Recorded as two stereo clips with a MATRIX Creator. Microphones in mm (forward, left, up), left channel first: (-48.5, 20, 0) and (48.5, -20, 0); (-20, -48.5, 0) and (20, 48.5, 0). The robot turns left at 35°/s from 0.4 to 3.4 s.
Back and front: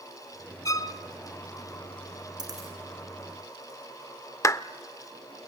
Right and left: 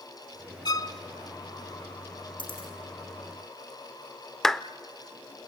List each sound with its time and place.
0.7 s a violin: 150° right, 1.4 m; by 1.0 s 160° right, 1.4 m
2.4 s a dropped coin: 70° right, 7 m; by 2.7 s 85° right, 7 m
4.4 s a clap: 165° left, 0.6 m